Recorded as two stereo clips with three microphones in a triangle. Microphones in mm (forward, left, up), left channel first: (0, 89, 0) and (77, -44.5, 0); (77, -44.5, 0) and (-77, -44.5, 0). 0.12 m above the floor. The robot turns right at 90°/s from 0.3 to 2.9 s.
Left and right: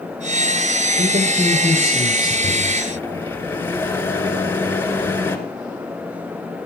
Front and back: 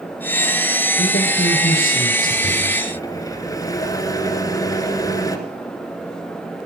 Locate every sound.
1.0 s a man speaking: 30° right, 2.5 m; by 2.3 s 95° left, 2.5 m
2.4 s a microwave: 10° left, 1.4 m; by 5.4 s 50° left, 1.4 m